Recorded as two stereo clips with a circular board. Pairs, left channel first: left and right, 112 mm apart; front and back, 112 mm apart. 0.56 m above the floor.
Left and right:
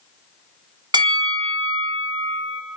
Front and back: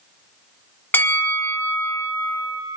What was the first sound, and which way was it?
A bell, 65° right.